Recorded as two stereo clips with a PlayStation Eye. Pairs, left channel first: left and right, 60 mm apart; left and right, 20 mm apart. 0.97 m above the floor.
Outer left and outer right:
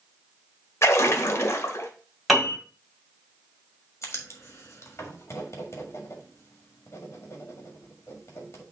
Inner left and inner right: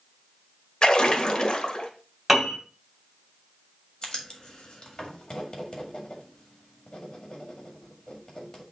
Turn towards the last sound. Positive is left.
turn(degrees=50)  # may be behind; listen again after turning